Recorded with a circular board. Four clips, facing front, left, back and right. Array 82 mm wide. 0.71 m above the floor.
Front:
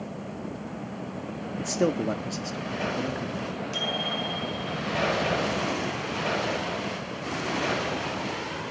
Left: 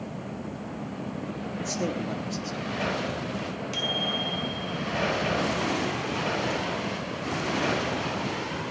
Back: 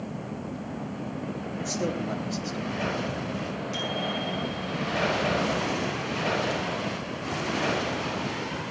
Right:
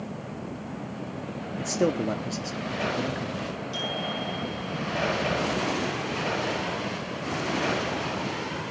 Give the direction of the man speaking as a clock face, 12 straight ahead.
2 o'clock.